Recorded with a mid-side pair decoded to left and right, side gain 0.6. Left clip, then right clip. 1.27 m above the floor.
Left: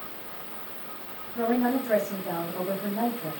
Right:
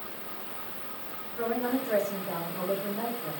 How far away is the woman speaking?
About 3 m.